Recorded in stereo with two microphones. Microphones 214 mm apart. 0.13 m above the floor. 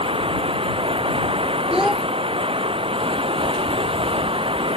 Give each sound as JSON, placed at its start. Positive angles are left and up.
{"t": 0.0, "sound": "running water", "side_deg": -25}
{"t": 1.7, "sound": "a child speaking", "side_deg": -5}